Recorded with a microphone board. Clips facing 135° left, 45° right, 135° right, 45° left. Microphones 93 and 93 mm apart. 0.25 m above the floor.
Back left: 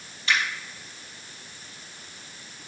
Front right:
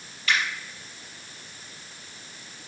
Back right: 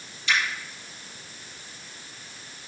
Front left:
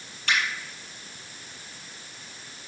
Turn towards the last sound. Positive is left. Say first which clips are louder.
# even, back right 1 dB
turn(degrees=75)